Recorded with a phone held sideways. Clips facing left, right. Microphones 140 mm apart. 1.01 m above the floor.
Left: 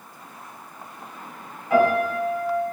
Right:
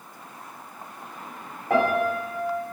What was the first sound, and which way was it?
A piano, 60° right (ahead or behind).